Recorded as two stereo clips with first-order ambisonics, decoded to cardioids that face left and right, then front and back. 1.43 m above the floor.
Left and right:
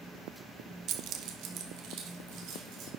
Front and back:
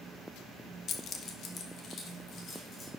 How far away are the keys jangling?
About 0.6 m.